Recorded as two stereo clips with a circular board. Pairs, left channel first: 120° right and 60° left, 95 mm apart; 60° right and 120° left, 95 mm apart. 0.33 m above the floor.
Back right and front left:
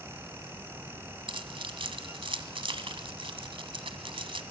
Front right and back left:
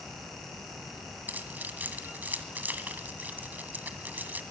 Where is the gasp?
I don't hear a gasp.